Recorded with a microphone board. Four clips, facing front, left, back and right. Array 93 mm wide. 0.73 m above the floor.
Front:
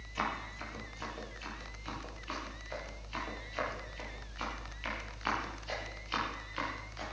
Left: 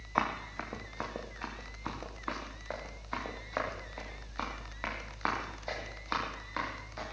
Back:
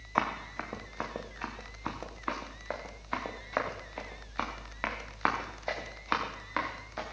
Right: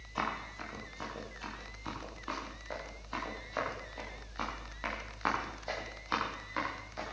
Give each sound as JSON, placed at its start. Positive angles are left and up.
{"t": 0.1, "sound": "running footsteps", "azimuth_deg": 145, "distance_m": 3.5}